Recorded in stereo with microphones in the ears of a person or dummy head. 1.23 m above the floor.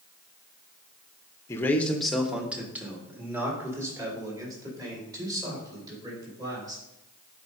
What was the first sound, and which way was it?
A man speaking, 15° left (ahead or behind).